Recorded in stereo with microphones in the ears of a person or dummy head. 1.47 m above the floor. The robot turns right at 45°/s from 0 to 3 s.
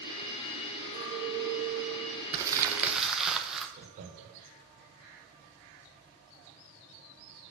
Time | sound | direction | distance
0.9 | a clink | 150° right | 1.1 m
2.3 | crumpling | 35° right | 0.7 m
3.8 | laughter | 40° right (ahead or behind) | 1.3 m